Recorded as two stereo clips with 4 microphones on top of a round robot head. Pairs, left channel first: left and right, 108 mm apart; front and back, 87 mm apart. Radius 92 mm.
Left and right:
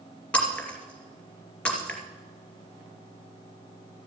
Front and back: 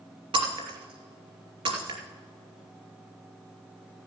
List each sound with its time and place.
0.3 s breaking glass: 165° left, 2.5 m